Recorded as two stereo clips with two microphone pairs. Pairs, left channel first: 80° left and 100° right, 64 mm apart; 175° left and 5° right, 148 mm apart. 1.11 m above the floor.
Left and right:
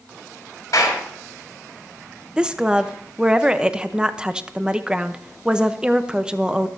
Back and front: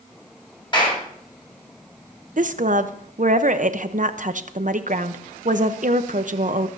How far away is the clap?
About 7 m.